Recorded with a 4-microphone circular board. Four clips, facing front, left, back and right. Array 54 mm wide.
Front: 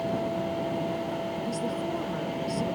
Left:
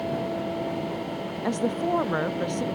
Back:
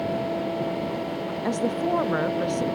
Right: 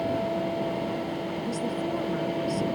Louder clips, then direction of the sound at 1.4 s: Left 7 dB, back 6 dB; 135° left.